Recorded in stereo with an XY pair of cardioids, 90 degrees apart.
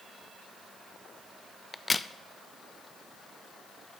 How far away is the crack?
About 0.5 m.